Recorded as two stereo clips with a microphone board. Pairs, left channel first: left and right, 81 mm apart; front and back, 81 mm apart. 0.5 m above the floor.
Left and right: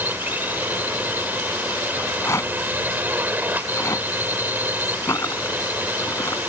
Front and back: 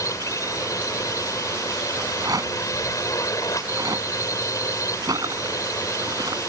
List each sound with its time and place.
0.0 s a drone: 30° right
2.0 s a rattle: 145° left